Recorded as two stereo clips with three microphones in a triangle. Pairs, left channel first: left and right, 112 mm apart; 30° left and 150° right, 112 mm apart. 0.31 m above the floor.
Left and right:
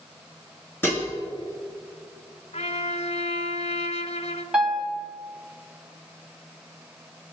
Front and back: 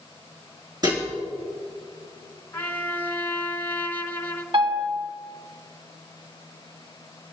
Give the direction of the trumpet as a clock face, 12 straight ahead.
9 o'clock.